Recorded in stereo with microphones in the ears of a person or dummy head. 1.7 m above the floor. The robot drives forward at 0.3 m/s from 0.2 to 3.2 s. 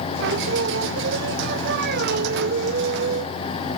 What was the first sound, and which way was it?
Singing, 60° right (ahead or behind).